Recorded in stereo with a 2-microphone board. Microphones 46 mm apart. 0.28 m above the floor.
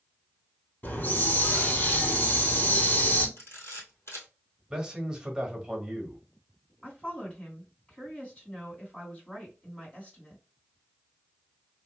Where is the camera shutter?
65° left (ahead or behind), 1.8 m.